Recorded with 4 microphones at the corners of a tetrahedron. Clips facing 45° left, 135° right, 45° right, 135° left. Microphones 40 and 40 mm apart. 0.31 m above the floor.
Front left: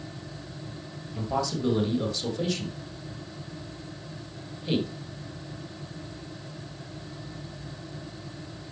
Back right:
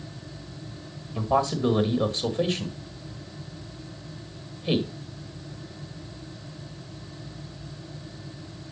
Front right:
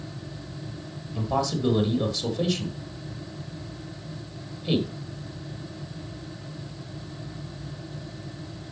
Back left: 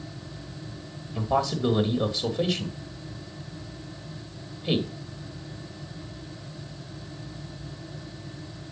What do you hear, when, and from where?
1.1 s a man speaking: 175° right, 2.0 m